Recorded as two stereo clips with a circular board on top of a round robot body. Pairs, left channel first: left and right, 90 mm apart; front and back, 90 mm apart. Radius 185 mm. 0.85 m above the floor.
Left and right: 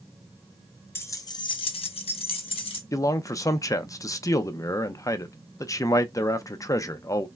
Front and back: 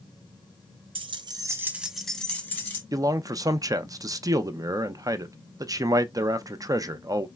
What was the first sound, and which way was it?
Keys jangling, 155° left.